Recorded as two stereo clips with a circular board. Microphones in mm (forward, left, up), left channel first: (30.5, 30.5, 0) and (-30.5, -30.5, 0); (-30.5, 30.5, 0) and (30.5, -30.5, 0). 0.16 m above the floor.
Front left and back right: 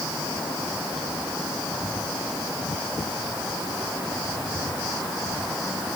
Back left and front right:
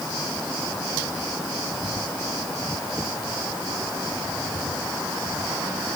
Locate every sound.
Only background noise.